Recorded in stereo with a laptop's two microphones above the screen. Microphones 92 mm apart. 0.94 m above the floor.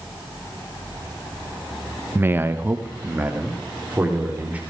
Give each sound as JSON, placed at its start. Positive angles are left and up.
{"t": 2.1, "sound": "a man speaking", "side_deg": -25, "distance_m": 0.8}